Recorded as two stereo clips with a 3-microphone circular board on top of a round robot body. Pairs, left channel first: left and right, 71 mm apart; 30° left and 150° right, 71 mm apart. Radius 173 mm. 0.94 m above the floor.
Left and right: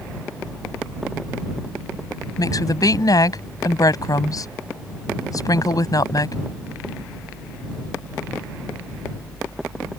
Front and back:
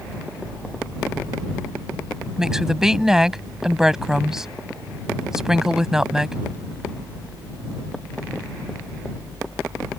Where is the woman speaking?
125° left.